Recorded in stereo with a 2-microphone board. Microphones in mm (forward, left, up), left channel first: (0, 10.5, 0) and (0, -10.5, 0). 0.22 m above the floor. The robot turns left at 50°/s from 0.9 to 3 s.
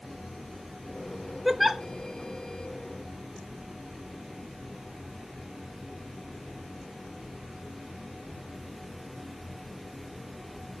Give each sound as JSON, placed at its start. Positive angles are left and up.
{"t": 1.4, "sound": "a giggle", "side_deg": -15, "distance_m": 0.5}